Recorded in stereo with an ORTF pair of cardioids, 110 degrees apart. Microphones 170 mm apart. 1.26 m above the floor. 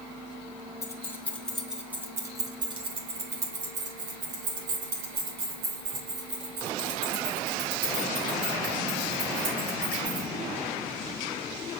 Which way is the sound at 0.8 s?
20° left.